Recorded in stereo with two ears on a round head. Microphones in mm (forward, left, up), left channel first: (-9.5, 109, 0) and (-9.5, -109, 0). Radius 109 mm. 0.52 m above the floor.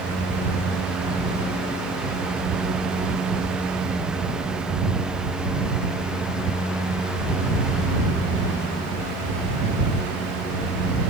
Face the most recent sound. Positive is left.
No sound to turn to.